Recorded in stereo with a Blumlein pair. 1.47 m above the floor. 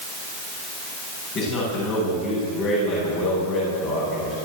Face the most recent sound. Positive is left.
turn(degrees=35)